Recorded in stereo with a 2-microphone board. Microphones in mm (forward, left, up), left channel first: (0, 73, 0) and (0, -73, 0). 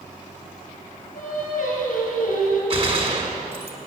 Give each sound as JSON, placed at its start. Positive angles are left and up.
{"t": 1.1, "sound": "singing", "side_deg": 70, "distance_m": 4.0}
{"t": 2.7, "sound": "a gunshot", "side_deg": -45, "distance_m": 1.4}